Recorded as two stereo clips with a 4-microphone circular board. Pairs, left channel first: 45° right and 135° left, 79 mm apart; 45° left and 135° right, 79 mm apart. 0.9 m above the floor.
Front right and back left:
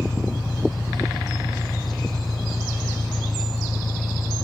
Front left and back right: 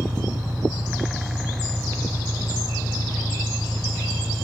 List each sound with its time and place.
0.0 s an engine running: 90° right